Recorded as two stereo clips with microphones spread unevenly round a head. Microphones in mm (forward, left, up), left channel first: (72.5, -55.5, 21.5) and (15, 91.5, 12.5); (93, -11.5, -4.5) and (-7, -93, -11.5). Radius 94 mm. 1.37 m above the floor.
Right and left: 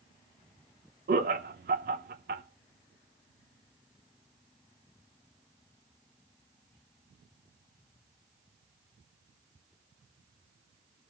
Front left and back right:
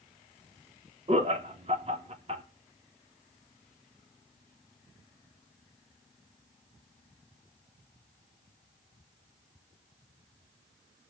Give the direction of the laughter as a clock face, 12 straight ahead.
7 o'clock.